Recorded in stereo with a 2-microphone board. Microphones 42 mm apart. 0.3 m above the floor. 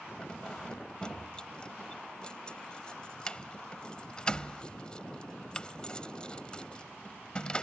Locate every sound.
0.2 s keys jangling: 25° left (ahead or behind)